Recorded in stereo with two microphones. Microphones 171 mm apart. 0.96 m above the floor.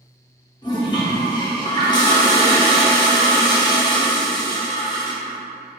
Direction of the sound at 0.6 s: 25° left (ahead or behind).